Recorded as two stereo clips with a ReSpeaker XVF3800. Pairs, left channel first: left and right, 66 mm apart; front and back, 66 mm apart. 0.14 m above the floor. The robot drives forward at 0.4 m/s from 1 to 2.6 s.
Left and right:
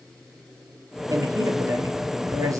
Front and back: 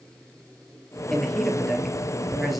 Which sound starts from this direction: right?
A man speaking, at 1.1 s.